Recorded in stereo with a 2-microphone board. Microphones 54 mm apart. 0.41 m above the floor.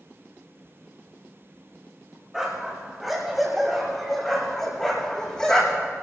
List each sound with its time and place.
2.3 s a dog barking: 10° right (ahead or behind), 7 m; by 5.9 s 20° left (ahead or behind), 6.5 m